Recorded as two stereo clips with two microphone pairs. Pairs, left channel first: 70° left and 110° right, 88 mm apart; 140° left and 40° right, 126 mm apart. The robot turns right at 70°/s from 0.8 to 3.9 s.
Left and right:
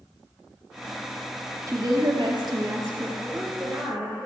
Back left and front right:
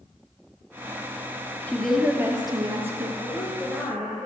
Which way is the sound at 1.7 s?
145° right.